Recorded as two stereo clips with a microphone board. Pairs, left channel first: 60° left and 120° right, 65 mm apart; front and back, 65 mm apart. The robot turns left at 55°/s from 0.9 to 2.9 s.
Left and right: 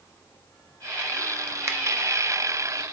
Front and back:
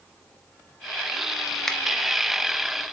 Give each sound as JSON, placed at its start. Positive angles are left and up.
{"t": 1.7, "sound": "a finger snap", "azimuth_deg": -80, "distance_m": 0.6}